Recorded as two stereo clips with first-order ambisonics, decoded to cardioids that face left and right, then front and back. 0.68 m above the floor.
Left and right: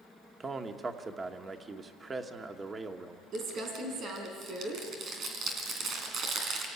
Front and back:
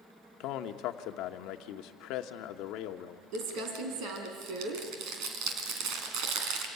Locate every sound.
0.4 s a man speaking: 20° right, 1.1 m
3.3 s crumpling: 145° right, 3 m